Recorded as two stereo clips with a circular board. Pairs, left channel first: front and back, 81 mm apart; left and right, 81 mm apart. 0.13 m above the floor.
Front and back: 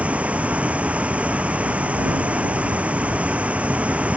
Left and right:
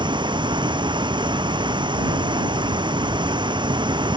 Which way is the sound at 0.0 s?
105° right.